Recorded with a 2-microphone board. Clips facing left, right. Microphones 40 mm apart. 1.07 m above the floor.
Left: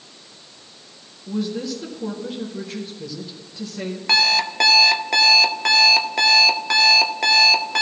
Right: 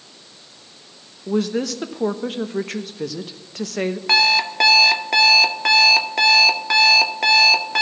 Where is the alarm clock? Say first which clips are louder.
Right 1 dB; 5° right (ahead or behind), 0.6 m.